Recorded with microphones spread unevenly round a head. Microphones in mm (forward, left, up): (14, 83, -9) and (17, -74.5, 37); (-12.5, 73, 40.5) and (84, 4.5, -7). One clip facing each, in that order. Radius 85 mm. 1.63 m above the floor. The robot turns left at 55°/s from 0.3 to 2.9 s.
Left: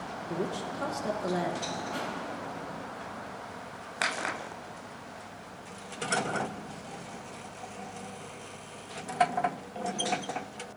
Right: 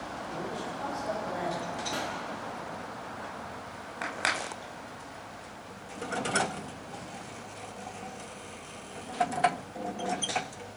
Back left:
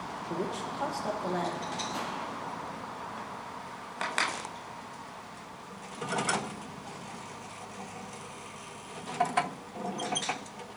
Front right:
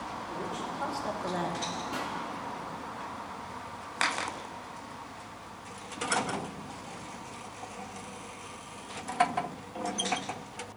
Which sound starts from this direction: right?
A pop, at 1.9 s.